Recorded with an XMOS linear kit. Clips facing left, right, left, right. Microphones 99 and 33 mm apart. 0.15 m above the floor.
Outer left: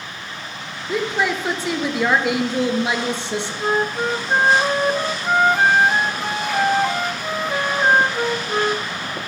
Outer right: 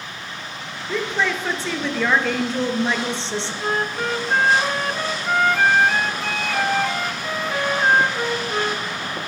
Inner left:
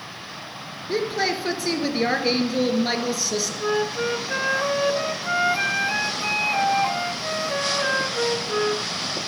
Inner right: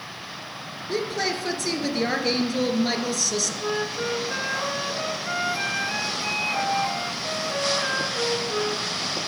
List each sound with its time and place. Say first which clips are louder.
0.9 s a woman speaking: outer left 2 dB, inner left 3 dB; 15° left (ahead or behind), 1.9 m
3.6 s a flute: outer left 4 dB, inner left 3 dB; 20° left (ahead or behind), 0.6 m